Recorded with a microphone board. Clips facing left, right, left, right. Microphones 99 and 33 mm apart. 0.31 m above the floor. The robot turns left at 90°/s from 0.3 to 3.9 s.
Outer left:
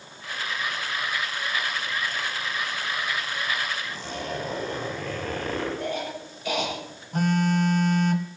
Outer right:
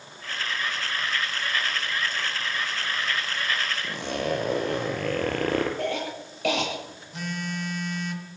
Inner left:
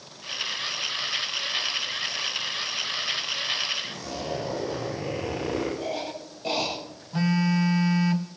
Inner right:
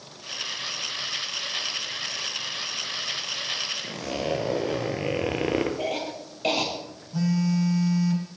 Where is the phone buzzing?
50° left (ahead or behind), 1.3 m.